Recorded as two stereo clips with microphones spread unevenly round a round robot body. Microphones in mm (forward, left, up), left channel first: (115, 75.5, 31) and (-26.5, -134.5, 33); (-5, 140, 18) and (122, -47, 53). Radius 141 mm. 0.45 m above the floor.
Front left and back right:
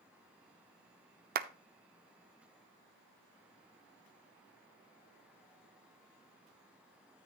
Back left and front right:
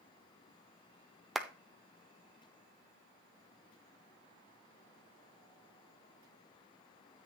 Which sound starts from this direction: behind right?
A clap, at 1.4 s.